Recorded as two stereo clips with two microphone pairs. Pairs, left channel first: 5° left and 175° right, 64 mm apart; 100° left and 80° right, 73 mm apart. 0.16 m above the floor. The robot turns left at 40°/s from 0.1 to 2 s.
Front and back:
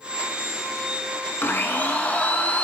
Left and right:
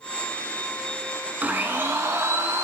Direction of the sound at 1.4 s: 30° right.